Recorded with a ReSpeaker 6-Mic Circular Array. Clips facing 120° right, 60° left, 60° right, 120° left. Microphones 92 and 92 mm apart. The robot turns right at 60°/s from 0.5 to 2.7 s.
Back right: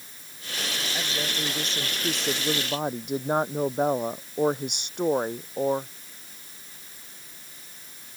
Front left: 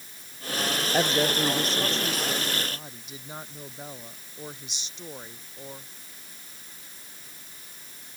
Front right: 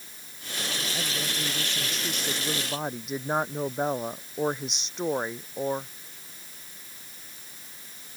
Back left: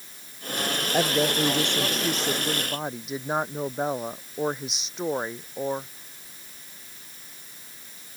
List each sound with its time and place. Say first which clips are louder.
0.9 s a woman speaking: front left 10 dB, back left 10 dB; 105° left; by 5.9 s 150° right